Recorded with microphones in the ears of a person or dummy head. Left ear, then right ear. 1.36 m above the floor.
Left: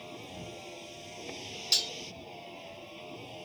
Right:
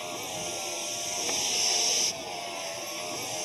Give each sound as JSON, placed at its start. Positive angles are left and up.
{"t": 0.0, "sound": "a vehicle", "side_deg": -45}
{"t": 1.7, "sound": "cutlery clinking", "side_deg": 40}